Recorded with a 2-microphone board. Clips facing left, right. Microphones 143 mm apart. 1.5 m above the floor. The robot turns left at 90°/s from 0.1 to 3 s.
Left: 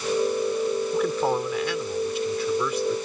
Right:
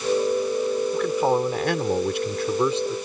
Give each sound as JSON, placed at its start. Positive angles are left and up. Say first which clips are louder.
{"t": 0.9, "sound": "a man speaking", "louder": "right 4 dB", "azimuth_deg": 10}